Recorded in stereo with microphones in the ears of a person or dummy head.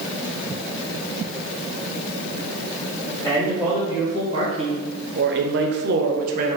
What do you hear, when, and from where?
3.2 s a man speaking: 10° right (ahead or behind), 1.6 m; by 6.6 s 40° right (ahead or behind), 1.0 m